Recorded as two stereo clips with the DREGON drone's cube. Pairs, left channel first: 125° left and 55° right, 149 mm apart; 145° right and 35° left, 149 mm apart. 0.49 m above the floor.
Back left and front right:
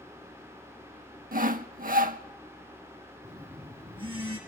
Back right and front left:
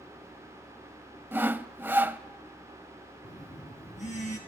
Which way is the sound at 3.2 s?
110° right.